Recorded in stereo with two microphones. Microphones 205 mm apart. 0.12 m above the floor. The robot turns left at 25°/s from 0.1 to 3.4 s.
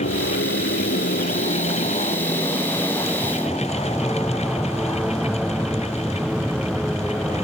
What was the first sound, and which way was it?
An aircraft, 80° left.